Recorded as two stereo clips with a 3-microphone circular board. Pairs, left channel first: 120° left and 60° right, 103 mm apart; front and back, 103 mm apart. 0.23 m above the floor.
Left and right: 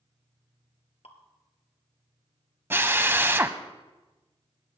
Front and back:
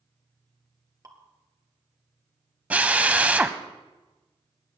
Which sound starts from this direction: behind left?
Dripping, at 1.0 s.